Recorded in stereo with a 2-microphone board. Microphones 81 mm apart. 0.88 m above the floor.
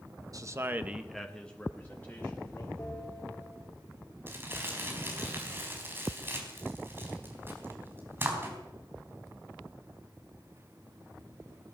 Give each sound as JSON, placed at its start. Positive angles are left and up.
{"t": 0.3, "sound": "a man speaking", "side_deg": -45, "distance_m": 1.0}
{"t": 2.8, "sound": "a bell", "side_deg": 25, "distance_m": 2.5}
{"t": 4.3, "sound": "crumpling", "side_deg": -30, "distance_m": 4.0}